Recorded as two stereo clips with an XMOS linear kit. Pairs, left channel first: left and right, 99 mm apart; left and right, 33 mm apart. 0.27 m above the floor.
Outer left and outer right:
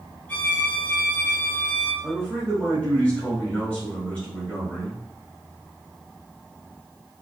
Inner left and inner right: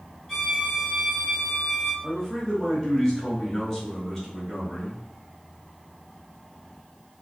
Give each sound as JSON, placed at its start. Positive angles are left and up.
{"t": 0.3, "sound": "a violin", "side_deg": 15, "distance_m": 1.0}
{"t": 2.0, "sound": "a man speaking", "side_deg": 15, "distance_m": 1.0}